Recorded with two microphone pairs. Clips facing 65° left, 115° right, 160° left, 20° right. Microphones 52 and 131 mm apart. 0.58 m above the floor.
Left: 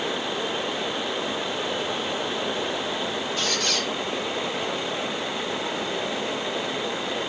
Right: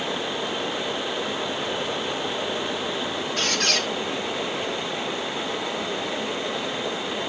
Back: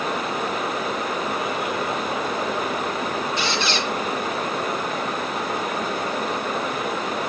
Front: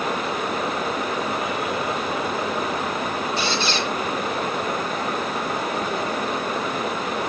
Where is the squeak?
80° right, 2.5 m.